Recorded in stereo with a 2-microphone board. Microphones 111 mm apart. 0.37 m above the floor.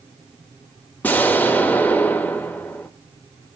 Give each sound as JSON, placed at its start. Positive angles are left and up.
{"t": 1.0, "sound": "an explosion", "side_deg": 15, "distance_m": 0.9}